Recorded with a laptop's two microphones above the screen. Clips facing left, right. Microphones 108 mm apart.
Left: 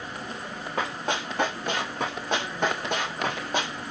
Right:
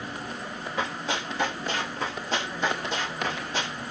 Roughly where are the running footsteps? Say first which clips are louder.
Left 2 dB; left.